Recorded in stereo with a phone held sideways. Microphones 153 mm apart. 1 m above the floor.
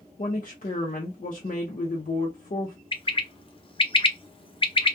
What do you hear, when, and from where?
0.2 s a woman speaking: 60° left (ahead or behind), 0.6 m
2.9 s a bird: 35° left (ahead or behind), 0.5 m